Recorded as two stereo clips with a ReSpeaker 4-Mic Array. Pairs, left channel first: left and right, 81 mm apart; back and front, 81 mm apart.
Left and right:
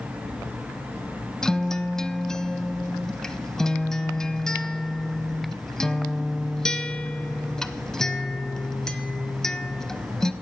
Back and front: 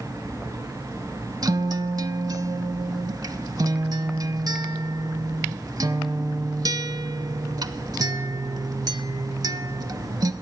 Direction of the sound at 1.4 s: 10° left.